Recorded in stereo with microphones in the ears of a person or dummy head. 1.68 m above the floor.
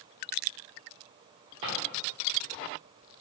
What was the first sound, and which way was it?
A drawer, 35° right (ahead or behind).